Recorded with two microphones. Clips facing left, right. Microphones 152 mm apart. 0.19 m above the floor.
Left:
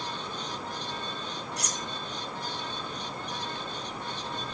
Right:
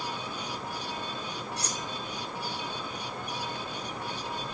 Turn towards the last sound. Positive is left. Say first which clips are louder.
# even
turn(degrees=-30)  # may be behind; listen again after turning